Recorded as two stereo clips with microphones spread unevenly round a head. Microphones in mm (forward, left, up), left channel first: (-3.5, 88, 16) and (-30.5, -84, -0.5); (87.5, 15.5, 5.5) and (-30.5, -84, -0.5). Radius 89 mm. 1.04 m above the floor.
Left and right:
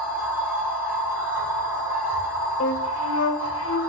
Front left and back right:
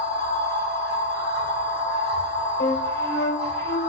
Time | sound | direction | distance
0.0 | a machine running | 175° right | 5 m
2.6 | a flute | 80° left | 1.9 m